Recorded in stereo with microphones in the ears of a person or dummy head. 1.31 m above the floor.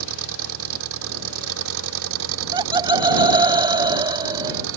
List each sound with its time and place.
0.0 s an engine running: 80° right
2.3 s laughter: 20° right (ahead or behind)